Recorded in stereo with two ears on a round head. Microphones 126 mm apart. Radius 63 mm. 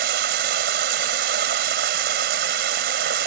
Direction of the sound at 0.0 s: 85° right.